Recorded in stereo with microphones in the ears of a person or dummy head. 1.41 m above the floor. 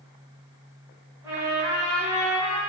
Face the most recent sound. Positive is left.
turn(degrees=-5)  # may be behind; listen again after turning